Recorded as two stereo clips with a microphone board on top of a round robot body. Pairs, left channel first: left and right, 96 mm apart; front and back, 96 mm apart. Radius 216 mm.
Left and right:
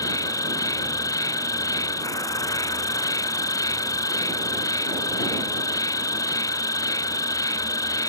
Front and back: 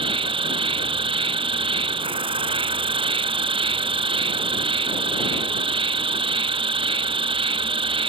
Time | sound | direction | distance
0.0 | an insect | 145° left | ?